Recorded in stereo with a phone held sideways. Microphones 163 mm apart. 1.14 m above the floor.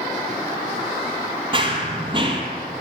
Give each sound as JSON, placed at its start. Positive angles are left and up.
{"t": 1.5, "sound": "running footsteps", "side_deg": -30, "distance_m": 1.7}